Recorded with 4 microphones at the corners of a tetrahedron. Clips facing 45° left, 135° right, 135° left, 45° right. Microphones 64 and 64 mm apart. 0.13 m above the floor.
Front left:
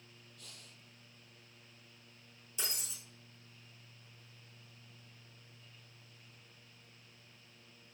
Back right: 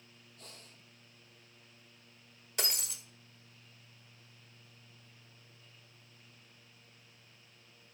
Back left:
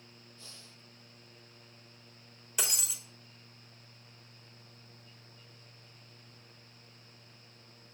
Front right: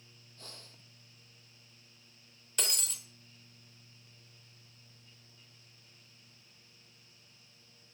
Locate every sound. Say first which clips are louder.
0.4 s breathing: back right 4 dB, front right 1 dB; 85° right, 1.1 m
2.6 s breaking glass: back right 6 dB, back left 1 dB; 145° right, 1.2 m